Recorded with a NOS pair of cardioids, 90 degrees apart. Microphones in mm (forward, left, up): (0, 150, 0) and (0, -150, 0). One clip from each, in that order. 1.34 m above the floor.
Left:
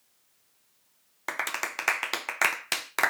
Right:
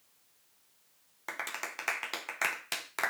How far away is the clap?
About 0.6 m.